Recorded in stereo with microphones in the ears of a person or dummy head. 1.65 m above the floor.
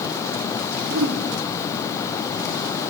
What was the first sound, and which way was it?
A whoosh, 75° right (ahead or behind).